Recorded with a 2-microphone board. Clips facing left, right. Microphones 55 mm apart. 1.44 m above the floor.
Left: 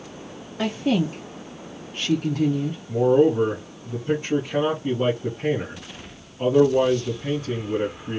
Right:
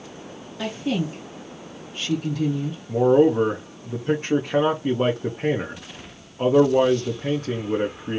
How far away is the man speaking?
About 0.6 m.